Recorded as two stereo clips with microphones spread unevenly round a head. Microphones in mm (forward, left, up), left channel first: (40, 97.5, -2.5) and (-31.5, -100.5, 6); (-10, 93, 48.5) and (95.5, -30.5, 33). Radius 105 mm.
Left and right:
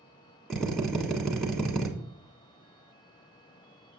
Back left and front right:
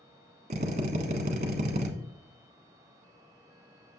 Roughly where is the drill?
Ahead.